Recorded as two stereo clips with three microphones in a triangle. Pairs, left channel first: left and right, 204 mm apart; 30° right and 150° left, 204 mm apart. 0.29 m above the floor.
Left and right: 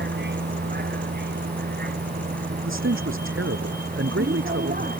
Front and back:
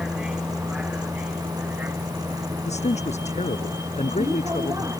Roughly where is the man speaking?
Right.